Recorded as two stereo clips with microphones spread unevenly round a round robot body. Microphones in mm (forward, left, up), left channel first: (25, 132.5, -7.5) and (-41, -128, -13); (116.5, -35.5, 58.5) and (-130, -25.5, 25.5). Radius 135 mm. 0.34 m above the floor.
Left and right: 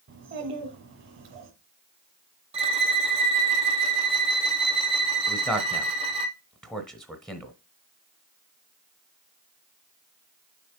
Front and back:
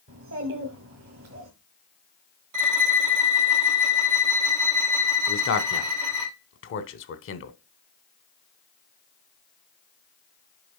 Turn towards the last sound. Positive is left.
turn(degrees=-10)